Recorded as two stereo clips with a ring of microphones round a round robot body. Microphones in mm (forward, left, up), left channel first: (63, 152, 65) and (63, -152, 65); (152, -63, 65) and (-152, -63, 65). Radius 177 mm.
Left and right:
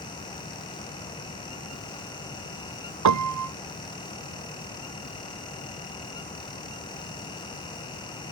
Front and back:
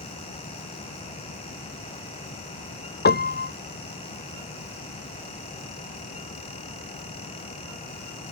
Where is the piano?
60° right.